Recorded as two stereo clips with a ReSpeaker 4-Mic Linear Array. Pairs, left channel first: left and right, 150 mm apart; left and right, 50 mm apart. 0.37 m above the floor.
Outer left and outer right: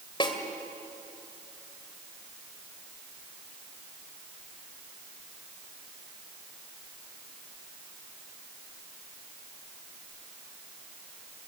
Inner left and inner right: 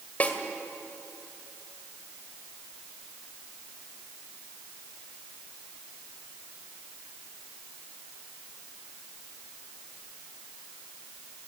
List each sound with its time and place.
0.2 s a snare drum: 35° left (ahead or behind), 1.9 m